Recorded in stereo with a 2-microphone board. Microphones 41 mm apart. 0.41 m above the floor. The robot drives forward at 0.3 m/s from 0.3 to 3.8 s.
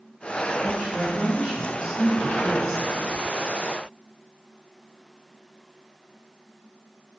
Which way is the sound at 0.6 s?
Centre (ahead or behind).